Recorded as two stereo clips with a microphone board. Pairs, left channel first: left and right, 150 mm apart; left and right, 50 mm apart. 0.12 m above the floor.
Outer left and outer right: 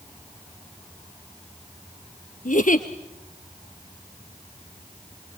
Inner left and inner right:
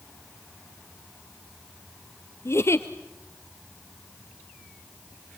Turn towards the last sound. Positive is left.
turn(degrees=60)  # may be behind; listen again after turning